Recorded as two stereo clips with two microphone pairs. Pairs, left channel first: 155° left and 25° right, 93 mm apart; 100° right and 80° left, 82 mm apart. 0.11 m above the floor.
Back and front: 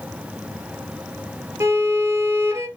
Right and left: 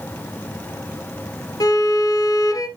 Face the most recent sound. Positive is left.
turn(degrees=-80)